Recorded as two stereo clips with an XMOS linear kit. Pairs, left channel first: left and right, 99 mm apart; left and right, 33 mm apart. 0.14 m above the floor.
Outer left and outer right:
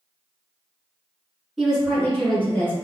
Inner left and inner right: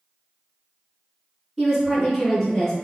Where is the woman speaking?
Centre (ahead or behind), 1.6 m; by 2.7 s 20° left (ahead or behind), 1.7 m.